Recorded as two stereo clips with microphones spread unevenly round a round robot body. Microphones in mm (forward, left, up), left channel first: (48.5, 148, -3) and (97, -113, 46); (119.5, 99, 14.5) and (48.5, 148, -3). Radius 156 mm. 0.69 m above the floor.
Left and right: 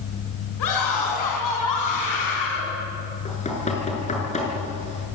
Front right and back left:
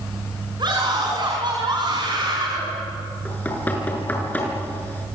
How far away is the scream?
About 6 m.